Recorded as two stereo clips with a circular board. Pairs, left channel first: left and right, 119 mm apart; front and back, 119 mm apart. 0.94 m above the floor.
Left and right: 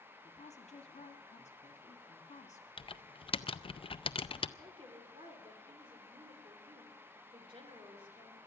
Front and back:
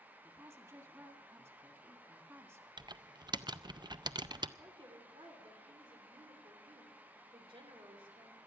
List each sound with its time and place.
0.2 s a woman speaking: 110° left, 1.9 m
2.8 s typing on a keyboard: 130° left, 0.5 m
4.6 s a woman speaking: 135° right, 3 m